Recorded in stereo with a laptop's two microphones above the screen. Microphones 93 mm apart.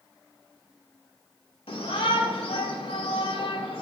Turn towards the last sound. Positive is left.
turn(degrees=90)